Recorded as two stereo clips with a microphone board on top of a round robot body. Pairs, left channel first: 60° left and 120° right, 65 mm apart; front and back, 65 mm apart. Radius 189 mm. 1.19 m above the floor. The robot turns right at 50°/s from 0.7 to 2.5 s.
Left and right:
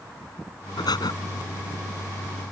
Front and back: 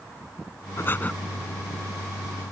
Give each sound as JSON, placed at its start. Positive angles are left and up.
{"t": 0.8, "sound": "breathing", "azimuth_deg": 50}